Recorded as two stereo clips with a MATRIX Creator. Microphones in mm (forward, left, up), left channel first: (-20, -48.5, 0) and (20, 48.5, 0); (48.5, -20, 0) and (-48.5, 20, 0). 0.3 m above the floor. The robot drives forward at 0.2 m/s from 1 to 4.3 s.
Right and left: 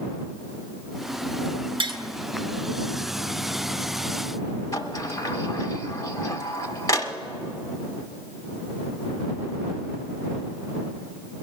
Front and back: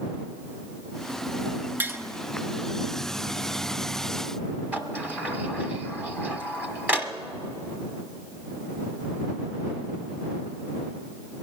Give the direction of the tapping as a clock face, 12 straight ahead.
9 o'clock.